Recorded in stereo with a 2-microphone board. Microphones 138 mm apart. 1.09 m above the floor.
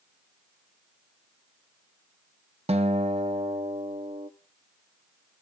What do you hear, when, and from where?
2.7 s a guitar: 45° right (ahead or behind), 0.9 m